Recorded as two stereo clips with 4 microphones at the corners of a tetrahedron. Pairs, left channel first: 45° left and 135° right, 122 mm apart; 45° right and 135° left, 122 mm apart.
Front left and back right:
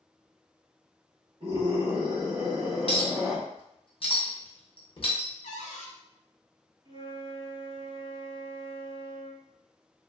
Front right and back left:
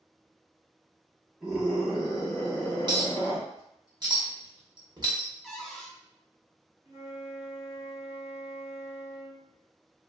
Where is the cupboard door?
40° left, 0.6 m.